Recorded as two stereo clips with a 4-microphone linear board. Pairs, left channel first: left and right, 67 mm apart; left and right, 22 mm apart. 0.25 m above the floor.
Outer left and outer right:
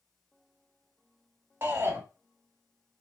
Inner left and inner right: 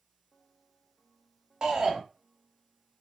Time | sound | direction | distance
1.6 | a shout | 35° right (ahead or behind) | 1.6 m